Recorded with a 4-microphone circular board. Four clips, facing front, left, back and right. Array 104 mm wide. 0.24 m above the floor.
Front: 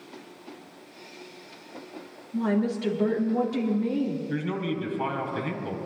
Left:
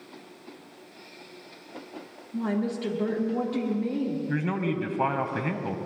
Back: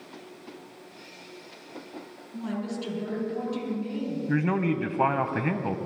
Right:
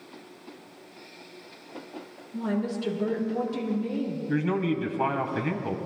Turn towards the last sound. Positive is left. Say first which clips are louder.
# right 2 dB, back 4 dB
turn(degrees=170)